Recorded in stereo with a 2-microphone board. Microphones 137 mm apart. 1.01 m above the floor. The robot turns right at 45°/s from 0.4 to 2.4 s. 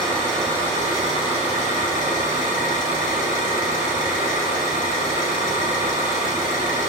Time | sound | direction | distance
0.0 | an engine running | 5° left | 2.5 m